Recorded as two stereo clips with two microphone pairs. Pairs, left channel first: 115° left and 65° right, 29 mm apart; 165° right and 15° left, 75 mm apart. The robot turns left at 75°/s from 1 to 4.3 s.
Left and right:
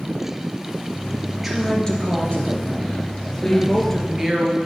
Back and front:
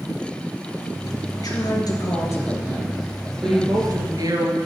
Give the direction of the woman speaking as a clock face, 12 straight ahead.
5 o'clock.